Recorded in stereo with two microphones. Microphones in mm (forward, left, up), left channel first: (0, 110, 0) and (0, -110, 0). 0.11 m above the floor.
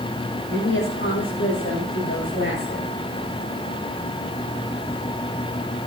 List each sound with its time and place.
0.5 s a woman speaking: 60° left (ahead or behind), 9 m; by 2.9 s 55° left (ahead or behind), 6.5 m